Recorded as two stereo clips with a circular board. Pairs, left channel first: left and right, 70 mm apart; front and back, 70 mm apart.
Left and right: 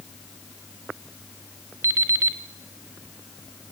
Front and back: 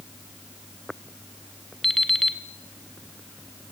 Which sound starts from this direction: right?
An alarm clock, at 1.8 s.